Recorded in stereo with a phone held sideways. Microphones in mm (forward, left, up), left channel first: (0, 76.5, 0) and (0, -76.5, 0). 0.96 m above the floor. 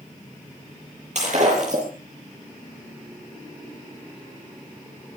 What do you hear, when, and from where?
1.1 s breaking glass: 55° right (ahead or behind), 8 m